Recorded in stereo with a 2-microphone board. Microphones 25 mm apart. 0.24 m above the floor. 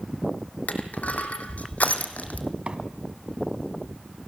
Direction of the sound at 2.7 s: 45° right (ahead or behind).